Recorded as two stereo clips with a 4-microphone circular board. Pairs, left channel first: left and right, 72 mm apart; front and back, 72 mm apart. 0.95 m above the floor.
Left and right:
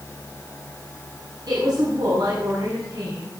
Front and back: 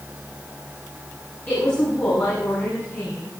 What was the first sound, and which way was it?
A woman speaking, 65° right.